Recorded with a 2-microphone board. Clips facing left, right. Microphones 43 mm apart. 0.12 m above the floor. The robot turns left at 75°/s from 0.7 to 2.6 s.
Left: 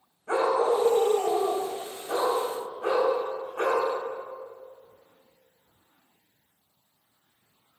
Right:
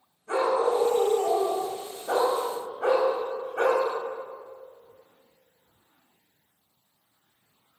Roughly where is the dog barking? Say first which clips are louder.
Even; ahead left.